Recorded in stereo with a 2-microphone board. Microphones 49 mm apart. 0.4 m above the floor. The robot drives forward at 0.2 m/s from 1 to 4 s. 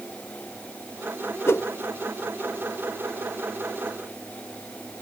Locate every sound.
1.5 s a whoosh: 55° left (ahead or behind), 0.9 m; by 1.6 s 50° left (ahead or behind), 0.9 m